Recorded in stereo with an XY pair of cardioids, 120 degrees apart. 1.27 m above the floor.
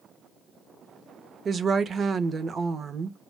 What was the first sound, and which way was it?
A woman speaking, 40° right.